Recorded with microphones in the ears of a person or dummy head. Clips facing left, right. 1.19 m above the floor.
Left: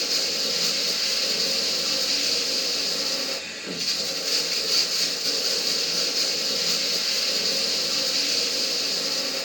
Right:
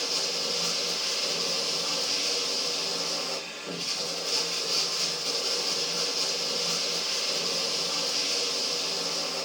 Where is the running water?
30° left (ahead or behind), 3 m.